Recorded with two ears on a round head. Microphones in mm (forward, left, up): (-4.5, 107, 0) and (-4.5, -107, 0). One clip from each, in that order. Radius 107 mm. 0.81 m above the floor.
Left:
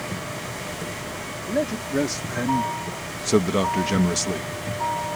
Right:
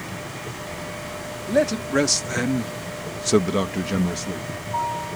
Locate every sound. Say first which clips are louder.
1.5 s a man speaking: right 5 dB; 60° right (ahead or behind); by 4.5 s 45° left (ahead or behind)